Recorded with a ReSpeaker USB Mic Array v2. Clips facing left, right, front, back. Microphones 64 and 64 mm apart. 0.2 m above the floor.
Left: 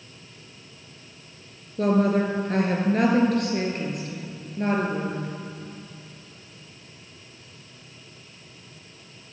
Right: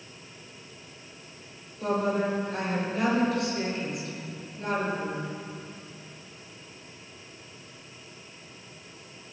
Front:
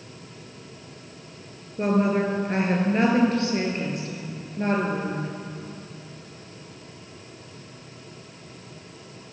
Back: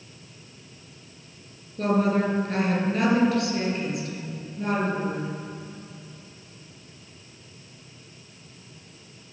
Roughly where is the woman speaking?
Left.